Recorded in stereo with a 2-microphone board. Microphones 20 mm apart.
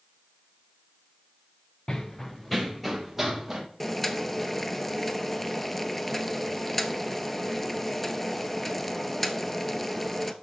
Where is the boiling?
10° left (ahead or behind), 0.6 m.